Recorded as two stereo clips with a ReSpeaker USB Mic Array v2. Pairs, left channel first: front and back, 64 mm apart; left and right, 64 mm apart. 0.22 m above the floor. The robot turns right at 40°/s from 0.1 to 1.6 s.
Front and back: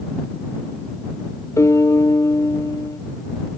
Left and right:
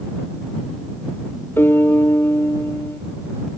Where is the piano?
35° left.